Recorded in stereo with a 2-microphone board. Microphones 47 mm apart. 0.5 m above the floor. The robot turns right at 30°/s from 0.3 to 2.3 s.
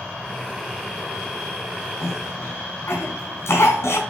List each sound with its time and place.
2.0 s a cough: 70° left (ahead or behind), 4 m; by 4.0 s 75° left (ahead or behind), 4 m